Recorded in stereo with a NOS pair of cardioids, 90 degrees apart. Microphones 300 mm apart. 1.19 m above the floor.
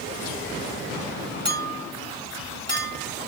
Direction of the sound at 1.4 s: 15° left.